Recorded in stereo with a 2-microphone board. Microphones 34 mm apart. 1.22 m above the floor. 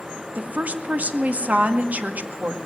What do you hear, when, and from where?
0.3 s a woman speaking: 60° right (ahead or behind), 1.9 m